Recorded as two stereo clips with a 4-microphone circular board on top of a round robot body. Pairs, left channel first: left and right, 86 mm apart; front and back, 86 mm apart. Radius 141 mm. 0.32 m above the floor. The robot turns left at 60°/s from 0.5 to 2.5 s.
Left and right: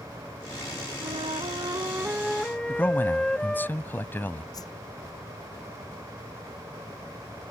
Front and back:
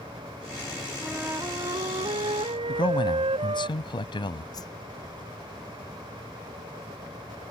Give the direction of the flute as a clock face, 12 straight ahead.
3 o'clock.